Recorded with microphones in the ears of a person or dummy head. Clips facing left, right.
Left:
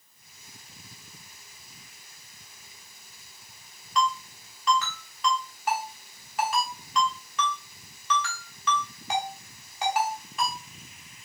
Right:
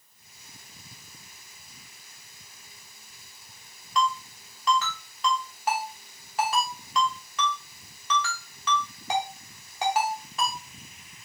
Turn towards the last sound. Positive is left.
turn(degrees=-35)  # may be behind; listen again after turning